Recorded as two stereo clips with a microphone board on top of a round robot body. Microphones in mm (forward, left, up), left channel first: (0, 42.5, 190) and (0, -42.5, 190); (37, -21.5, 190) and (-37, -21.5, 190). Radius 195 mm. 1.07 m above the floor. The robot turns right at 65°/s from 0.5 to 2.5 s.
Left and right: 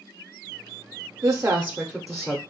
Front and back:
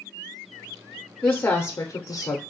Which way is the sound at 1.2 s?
55° right.